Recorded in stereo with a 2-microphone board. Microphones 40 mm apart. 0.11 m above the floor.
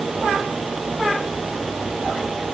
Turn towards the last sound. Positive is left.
No sound to turn to.